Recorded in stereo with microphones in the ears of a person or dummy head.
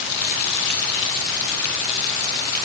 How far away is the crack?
No crack in this recording.